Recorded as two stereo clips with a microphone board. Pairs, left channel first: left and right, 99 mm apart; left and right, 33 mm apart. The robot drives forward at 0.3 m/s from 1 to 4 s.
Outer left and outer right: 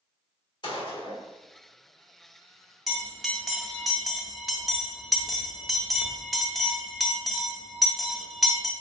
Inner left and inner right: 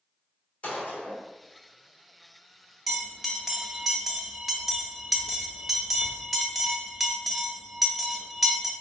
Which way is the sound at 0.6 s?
50° left (ahead or behind).